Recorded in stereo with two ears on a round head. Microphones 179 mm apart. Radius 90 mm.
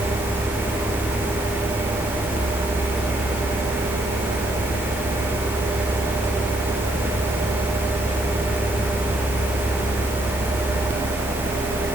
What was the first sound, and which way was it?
Only background noise.